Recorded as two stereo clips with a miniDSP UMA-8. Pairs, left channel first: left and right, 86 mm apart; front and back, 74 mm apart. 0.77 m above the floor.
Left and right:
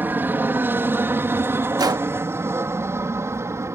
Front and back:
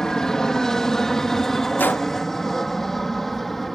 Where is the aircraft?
75° right; by 3.8 s 85° right.